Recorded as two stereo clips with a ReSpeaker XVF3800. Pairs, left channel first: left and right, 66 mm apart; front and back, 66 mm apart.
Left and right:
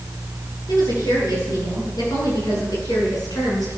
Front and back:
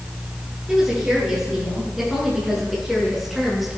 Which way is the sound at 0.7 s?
95° left.